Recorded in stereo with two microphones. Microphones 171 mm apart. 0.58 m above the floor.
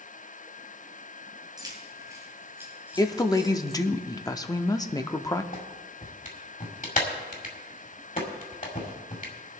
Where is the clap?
50° left (ahead or behind), 2 m.